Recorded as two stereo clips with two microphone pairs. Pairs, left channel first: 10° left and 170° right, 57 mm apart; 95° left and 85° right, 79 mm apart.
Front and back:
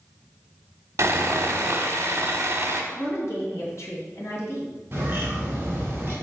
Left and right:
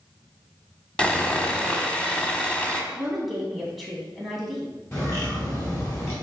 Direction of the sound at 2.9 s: 5° left.